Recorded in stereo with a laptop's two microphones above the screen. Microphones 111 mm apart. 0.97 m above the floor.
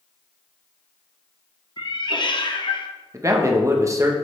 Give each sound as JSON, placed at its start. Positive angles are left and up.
{"t": 1.8, "sound": "a cat meowing", "side_deg": 45, "distance_m": 0.7}
{"t": 3.1, "sound": "a man speaking", "side_deg": -25, "distance_m": 1.1}